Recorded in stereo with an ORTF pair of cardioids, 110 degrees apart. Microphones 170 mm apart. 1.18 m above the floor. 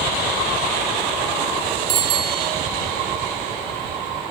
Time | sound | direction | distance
1.9 | a bicycle bell | 70° right | 4.5 m